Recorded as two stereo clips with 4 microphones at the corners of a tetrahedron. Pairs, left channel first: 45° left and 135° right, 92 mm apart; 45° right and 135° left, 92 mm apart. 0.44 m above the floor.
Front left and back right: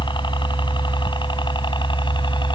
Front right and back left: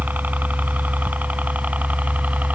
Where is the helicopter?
65° left.